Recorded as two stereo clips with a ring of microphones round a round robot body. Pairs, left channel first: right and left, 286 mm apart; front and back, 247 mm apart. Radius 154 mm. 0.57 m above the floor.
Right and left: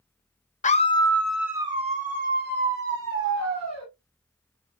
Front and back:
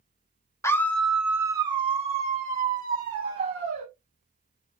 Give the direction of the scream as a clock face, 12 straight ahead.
2 o'clock.